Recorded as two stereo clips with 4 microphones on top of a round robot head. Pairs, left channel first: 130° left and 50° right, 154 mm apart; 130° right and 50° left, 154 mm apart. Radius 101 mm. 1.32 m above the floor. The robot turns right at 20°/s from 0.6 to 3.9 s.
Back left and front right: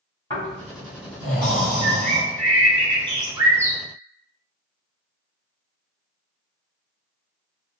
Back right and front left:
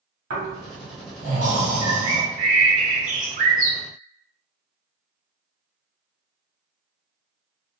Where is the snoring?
70° left, 1.5 m; by 2.2 s 105° left, 1.5 m.